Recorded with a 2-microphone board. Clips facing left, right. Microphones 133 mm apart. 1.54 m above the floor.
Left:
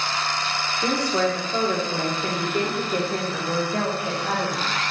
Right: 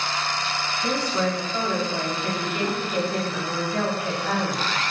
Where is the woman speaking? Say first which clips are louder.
Left 2 dB; 75° left (ahead or behind), 1.9 m; by 4.7 s 10° left (ahead or behind), 2 m.